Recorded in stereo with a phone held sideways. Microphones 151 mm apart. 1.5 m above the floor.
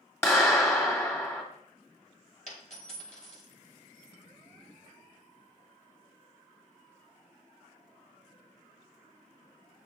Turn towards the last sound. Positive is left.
turn(degrees=55)  # may be behind; listen again after turning